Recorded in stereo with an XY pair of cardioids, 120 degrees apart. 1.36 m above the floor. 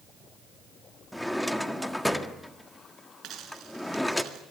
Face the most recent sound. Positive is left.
turn(degrees=-65)